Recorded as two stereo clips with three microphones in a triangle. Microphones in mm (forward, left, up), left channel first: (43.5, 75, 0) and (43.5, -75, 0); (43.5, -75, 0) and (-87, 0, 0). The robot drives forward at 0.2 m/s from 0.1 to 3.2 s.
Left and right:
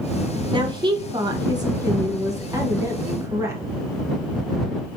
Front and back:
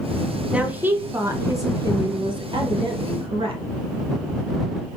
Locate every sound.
0.5 s a woman speaking: 130° right, 0.5 m; by 3.6 s 160° right, 0.9 m